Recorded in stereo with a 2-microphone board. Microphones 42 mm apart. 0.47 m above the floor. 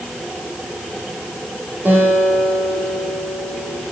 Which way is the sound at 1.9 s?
55° right (ahead or behind).